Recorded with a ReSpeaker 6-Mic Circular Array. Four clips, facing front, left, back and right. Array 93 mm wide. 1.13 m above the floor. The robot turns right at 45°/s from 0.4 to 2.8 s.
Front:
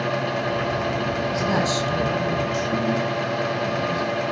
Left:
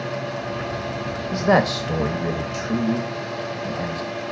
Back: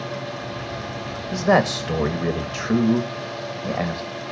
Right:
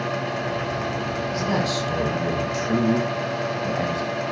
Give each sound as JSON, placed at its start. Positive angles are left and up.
{"t": 1.3, "sound": "a man speaking", "azimuth_deg": 125, "distance_m": 2.0}